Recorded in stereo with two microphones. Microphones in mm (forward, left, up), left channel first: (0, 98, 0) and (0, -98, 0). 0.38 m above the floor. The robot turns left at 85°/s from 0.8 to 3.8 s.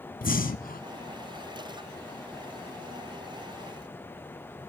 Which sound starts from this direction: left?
Breathing, at 0.2 s.